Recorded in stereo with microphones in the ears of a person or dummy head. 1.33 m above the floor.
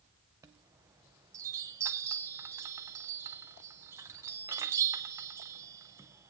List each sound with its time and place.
0.4 s a chime: 10° right (ahead or behind), 0.6 m